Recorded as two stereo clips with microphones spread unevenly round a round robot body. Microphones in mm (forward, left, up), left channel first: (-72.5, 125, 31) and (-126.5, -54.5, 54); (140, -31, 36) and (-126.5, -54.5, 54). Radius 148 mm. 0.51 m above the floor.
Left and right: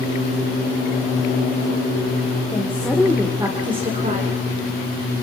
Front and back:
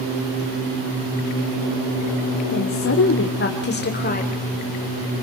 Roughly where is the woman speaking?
Ahead.